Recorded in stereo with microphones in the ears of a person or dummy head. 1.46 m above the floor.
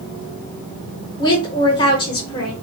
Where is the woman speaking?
25° left (ahead or behind), 1.0 m.